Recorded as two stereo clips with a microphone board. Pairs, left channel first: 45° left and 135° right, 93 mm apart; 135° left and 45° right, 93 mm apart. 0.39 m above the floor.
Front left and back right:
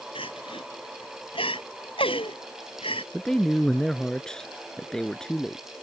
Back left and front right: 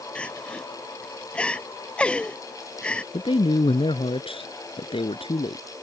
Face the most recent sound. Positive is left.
turn(degrees=125)